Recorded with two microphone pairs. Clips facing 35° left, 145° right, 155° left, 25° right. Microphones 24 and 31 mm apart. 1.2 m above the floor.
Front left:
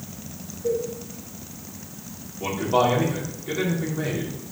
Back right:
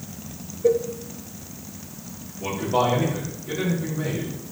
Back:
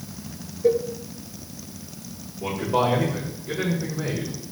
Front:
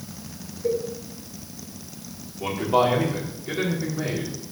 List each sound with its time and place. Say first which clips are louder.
0.6 s a cowbell: back right 5 dB, back 5 dB; 160° right, 0.7 m
2.4 s a man speaking: front left 1 dB, front 2 dB; 15° right, 4 m